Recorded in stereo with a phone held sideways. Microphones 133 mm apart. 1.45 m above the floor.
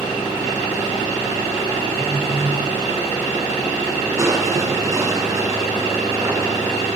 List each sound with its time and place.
1.9 s a phone buzzing: 20° right (ahead or behind), 10 m
4.2 s crushing: 25° right (ahead or behind), 9 m